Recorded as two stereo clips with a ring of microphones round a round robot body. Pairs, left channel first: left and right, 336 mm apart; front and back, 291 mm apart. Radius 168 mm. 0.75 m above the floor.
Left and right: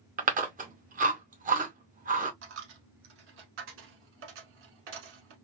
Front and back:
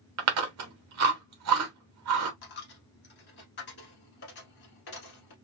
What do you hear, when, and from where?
0.2 s chewing: 155° right, 0.8 m
2.4 s a dropped coin: 45° right, 0.9 m